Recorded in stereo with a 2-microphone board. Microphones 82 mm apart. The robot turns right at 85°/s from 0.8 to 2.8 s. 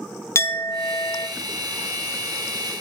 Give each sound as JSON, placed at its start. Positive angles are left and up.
{"t": 0.3, "sound": "a clink", "azimuth_deg": 70, "distance_m": 0.7}